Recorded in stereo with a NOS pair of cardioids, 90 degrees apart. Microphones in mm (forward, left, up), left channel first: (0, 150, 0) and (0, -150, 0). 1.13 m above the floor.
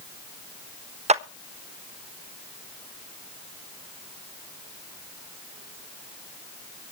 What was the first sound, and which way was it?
A clap, 20° right.